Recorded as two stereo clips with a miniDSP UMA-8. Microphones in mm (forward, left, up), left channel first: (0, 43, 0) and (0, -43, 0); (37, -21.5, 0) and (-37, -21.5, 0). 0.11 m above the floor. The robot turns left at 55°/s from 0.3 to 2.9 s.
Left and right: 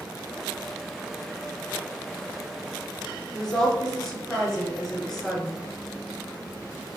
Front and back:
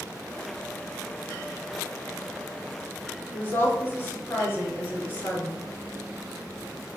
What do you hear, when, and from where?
3.3 s a woman speaking: 10° left, 1.3 m